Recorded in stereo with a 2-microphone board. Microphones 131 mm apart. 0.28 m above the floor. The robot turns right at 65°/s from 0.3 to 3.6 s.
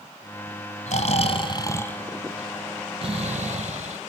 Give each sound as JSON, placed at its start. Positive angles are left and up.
{"t": 0.9, "sound": "snoring", "azimuth_deg": 95, "distance_m": 1.7}